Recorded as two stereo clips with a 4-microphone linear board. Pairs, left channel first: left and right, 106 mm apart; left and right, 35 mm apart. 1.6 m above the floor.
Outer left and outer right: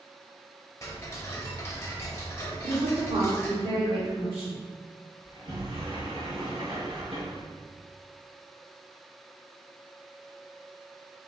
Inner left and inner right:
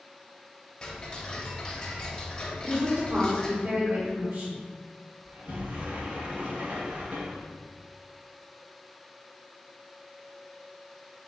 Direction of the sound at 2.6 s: 60° right (ahead or behind).